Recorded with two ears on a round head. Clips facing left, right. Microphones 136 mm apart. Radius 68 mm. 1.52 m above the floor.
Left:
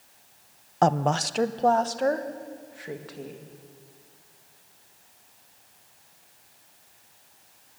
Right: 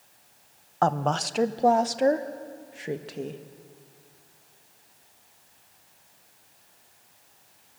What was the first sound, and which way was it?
A woman speaking, 20° left (ahead or behind).